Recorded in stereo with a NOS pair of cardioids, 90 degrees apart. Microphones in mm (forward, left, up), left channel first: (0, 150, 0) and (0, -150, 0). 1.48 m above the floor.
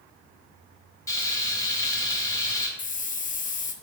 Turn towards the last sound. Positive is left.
turn(degrees=25)